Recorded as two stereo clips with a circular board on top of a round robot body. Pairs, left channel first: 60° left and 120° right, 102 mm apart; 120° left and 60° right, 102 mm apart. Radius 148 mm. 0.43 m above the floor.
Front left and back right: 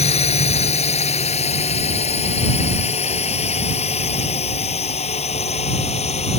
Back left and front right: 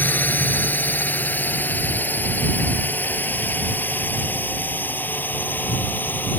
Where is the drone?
45° left.